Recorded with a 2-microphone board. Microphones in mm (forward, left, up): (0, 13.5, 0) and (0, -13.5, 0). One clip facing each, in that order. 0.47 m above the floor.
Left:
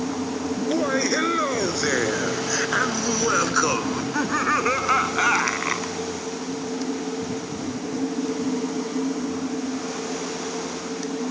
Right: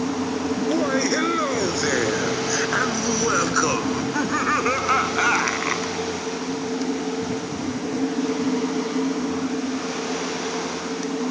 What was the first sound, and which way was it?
Laughter, 5° left (ahead or behind).